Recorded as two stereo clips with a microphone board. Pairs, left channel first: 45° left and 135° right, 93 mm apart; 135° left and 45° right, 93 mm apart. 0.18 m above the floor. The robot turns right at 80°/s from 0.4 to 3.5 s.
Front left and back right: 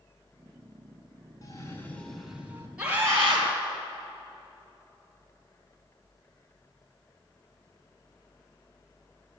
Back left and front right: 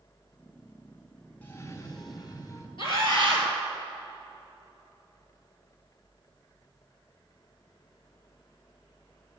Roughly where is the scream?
Behind left.